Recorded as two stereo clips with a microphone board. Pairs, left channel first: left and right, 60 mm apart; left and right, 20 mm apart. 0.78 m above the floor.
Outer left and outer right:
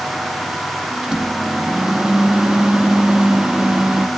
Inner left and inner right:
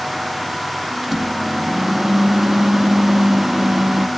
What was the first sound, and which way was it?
A microwave, 15° right (ahead or behind).